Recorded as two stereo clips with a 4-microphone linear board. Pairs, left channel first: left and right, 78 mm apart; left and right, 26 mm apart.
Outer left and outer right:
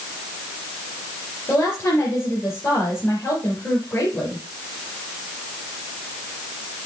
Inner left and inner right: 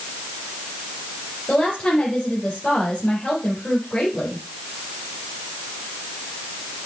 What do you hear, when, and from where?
1.5 s a woman speaking: 40° left (ahead or behind), 3.5 m